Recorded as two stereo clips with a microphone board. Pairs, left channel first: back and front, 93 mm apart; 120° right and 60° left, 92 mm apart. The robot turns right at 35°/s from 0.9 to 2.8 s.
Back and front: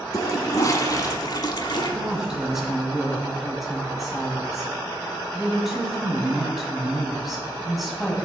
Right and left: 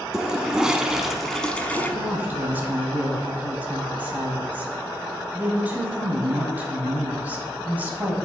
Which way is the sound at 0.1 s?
145° left.